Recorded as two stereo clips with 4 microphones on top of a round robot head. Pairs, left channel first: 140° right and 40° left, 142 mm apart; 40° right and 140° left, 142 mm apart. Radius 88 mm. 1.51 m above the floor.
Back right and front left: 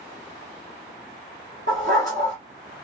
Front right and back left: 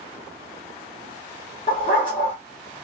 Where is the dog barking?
10° left, 1.5 m.